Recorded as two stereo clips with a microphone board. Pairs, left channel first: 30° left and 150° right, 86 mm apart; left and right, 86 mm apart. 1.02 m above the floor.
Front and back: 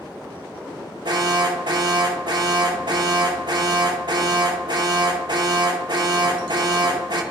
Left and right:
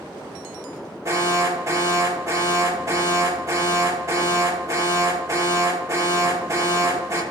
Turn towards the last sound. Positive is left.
turn(degrees=-140)